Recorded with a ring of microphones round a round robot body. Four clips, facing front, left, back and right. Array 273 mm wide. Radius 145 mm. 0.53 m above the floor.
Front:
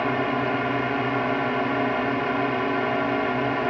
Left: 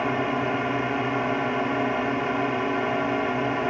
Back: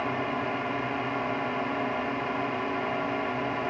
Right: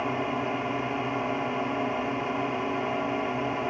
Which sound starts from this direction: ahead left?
A drone, at 0.0 s.